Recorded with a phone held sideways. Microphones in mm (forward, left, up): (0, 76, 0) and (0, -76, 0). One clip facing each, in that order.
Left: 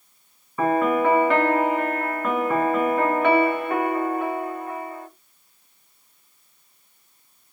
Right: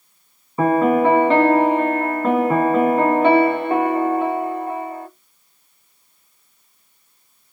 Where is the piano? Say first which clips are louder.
Right 5 dB; 30° right (ahead or behind), 1.1 m.